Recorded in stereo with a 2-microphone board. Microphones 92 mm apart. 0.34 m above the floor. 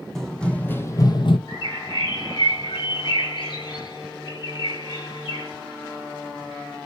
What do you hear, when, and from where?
0.1 s running footsteps: 5° left (ahead or behind), 1.3 m; by 1.4 s 65° left (ahead or behind), 0.7 m
1.5 s a bird: 55° left (ahead or behind), 2.5 m